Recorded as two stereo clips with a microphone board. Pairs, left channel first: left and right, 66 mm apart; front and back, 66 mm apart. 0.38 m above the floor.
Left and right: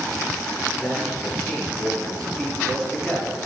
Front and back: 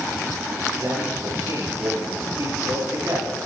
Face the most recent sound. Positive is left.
turn(degrees=165)